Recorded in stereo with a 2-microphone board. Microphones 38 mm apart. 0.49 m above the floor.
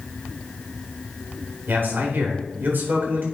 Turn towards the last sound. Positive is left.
turn(degrees=-55)  # may be behind; listen again after turning